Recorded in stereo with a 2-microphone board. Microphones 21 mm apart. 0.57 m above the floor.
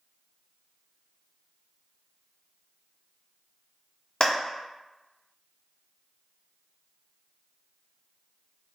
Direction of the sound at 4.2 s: 50° left (ahead or behind).